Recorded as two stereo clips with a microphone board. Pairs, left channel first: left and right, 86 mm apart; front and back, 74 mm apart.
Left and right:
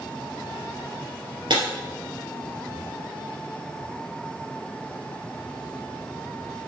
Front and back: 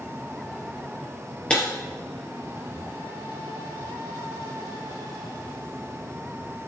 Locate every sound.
1.5 s breaking glass: 75° right, 3 m